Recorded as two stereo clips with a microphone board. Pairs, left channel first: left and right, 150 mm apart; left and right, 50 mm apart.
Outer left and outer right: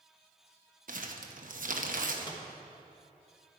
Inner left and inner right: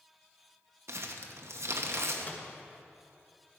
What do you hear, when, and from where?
0.9 s crumpling: 65° right (ahead or behind), 0.9 m
2.3 s a microwave: 30° left (ahead or behind), 1.3 m